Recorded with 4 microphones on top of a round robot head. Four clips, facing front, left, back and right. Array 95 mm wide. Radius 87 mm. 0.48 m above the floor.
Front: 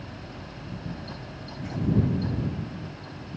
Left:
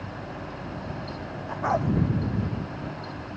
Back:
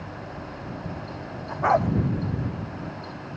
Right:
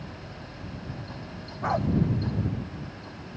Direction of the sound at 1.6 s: 170° left.